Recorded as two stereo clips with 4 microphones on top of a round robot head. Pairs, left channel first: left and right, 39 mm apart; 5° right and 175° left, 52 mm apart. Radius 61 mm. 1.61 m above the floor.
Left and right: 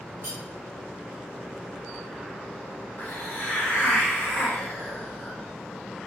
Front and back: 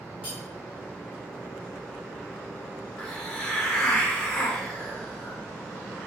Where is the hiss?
70° left, 1.0 m.